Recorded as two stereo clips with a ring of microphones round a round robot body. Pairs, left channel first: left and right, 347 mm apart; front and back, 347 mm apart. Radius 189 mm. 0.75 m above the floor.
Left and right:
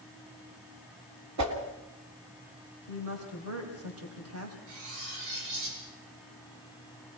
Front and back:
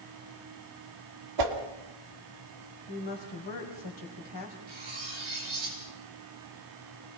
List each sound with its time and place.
1.4 s a whoosh: 140° right, 2.5 m
2.9 s a woman speaking: 40° right, 4 m
4.7 s cutlery clinking: 115° right, 8 m